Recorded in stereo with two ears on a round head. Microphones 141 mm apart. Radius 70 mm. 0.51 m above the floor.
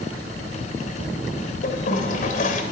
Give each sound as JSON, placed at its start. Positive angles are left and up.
{"t": 1.6, "sound": "a toilet flushing", "side_deg": 55, "distance_m": 2.5}